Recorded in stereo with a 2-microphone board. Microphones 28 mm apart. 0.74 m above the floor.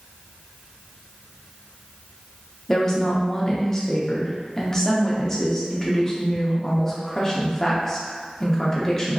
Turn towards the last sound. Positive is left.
turn(degrees=15)  # may be behind; listen again after turning